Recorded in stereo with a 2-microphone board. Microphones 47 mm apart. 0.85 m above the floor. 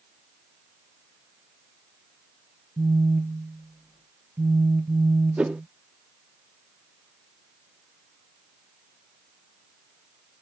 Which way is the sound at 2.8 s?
45° right (ahead or behind).